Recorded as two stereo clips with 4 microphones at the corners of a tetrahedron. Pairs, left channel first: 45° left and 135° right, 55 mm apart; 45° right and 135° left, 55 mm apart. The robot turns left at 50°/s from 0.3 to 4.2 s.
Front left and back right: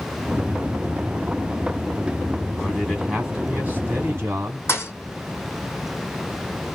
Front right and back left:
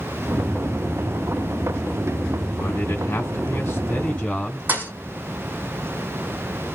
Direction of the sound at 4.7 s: 80° left.